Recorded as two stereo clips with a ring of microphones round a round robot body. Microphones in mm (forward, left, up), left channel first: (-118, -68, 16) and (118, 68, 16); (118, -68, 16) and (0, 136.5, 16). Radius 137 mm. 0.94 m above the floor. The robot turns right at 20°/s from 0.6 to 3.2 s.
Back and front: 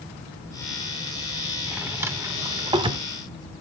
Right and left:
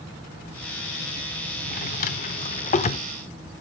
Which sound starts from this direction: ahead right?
A drawer, at 1.7 s.